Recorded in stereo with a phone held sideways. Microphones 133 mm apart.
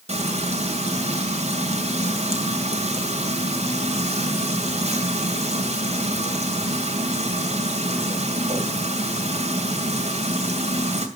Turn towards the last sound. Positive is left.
turn(degrees=-55)  # may be behind; listen again after turning